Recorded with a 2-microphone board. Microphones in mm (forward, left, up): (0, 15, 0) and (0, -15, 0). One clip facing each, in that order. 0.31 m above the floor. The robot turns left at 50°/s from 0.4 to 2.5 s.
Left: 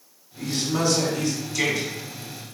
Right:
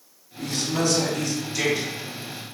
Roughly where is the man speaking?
Ahead left.